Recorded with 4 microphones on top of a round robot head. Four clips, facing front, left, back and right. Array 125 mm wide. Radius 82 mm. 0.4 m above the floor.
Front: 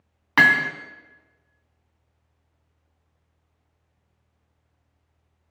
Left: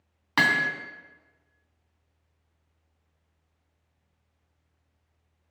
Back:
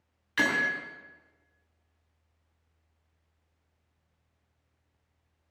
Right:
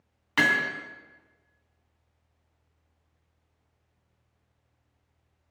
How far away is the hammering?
About 2.5 m.